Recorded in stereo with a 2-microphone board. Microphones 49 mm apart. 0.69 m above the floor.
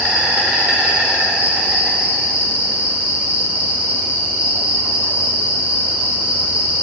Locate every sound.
0.0 s an insect: 25° right (ahead or behind), 1.3 m